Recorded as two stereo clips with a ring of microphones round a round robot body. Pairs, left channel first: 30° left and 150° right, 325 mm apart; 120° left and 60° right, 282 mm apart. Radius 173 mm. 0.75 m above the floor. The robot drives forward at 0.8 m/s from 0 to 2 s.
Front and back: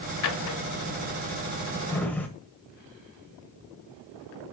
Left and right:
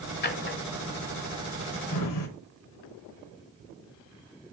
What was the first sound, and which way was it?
A drawer, 65° left.